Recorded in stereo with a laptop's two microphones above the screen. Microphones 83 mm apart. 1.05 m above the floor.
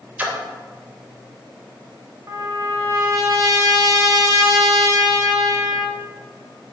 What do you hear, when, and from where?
0.2 s a splash: 20° right (ahead or behind), 0.5 m
2.3 s a trumpet: 40° right (ahead or behind), 1.3 m